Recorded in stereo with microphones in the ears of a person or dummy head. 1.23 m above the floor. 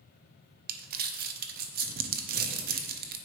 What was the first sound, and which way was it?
Crumpling, 50° right (ahead or behind).